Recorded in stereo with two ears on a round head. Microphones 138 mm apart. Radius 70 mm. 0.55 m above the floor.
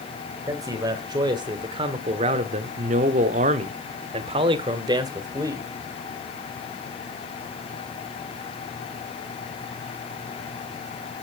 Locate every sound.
0.5 s a man speaking: 25° right (ahead or behind), 2.5 m; by 5.7 s 20° right (ahead or behind), 2 m